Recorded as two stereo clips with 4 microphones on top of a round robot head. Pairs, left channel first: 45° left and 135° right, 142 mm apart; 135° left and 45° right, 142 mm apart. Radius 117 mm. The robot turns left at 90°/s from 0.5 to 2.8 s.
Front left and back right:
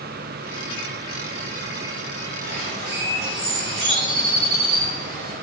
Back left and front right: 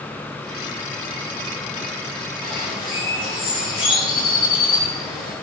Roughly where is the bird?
Behind right.